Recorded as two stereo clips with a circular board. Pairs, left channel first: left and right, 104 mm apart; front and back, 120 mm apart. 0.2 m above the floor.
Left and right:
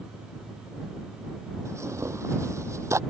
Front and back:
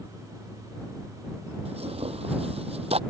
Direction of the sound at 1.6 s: 150° right.